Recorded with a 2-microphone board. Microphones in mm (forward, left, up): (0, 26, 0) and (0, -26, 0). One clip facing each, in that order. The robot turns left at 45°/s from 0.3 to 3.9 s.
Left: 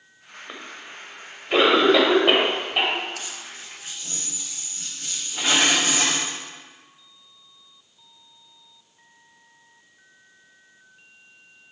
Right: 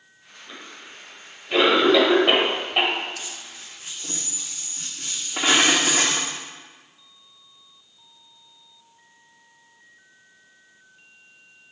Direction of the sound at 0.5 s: 40° left (ahead or behind).